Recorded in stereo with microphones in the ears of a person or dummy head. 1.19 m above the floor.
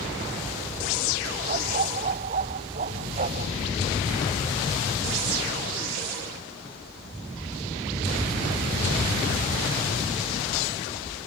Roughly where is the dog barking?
Right.